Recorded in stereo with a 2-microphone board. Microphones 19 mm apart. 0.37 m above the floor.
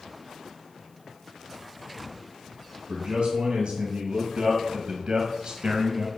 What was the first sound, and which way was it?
A man speaking, 70° right (ahead or behind).